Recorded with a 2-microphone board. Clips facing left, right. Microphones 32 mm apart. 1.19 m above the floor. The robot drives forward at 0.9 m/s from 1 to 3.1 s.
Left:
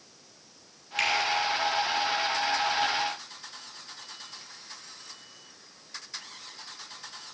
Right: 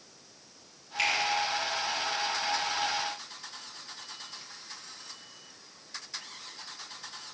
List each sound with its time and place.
1.0 s a finger snap: 80° left, 4.5 m